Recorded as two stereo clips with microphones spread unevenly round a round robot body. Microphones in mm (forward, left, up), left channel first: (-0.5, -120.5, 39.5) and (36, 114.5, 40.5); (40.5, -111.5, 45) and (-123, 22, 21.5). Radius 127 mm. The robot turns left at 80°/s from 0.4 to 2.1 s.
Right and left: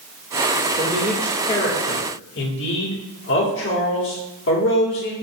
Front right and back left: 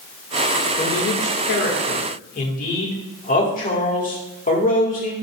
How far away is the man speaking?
About 2.0 m.